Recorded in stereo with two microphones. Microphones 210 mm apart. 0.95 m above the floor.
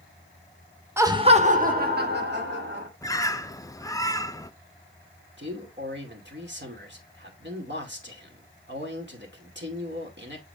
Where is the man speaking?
60° right (ahead or behind), 2 m.